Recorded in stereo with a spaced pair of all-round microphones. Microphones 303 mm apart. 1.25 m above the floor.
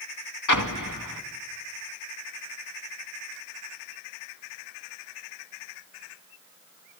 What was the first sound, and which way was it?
An explosion, 80° left.